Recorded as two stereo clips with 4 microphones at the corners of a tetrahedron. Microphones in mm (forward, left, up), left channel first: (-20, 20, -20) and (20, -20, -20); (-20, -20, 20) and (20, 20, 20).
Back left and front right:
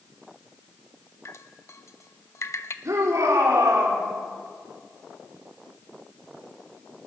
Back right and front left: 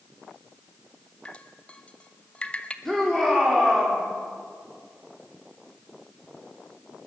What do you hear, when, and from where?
1.2 s dripping: 160° left, 1.0 m
2.9 s a shout: 55° right, 4.5 m